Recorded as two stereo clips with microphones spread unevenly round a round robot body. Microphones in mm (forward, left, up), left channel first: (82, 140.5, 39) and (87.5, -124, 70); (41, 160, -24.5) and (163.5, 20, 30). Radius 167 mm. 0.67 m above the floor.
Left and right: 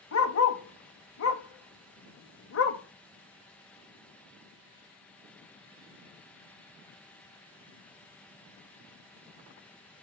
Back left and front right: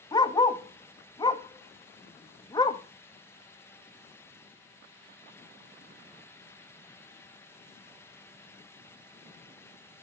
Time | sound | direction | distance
0.1 | a dog barking | 55° left | 0.9 m